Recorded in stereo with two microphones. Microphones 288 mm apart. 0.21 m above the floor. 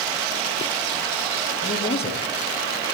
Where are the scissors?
I don't hear scissors.